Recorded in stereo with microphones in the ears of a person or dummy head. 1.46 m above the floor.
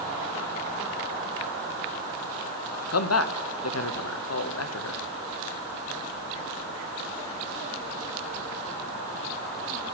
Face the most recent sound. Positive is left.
turn(degrees=80)